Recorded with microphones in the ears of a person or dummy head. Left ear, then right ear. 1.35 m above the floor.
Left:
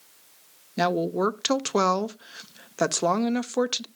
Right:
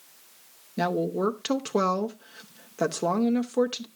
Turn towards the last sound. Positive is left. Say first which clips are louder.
# left 2 dB
turn(degrees=30)  # may be behind; listen again after turning